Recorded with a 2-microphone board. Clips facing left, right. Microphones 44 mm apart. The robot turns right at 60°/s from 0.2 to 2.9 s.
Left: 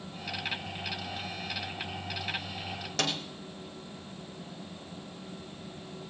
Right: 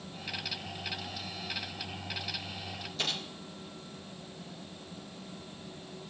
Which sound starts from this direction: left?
A snare drum, at 3.0 s.